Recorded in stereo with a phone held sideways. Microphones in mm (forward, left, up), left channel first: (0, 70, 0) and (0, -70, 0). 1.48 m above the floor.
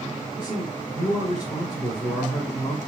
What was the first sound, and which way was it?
A man speaking, 40° left (ahead or behind).